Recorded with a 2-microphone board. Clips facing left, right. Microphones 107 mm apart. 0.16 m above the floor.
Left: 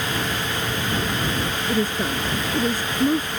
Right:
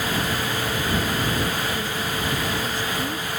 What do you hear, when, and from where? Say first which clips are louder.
1.7 s a woman speaking: left 4 dB; 45° left (ahead or behind)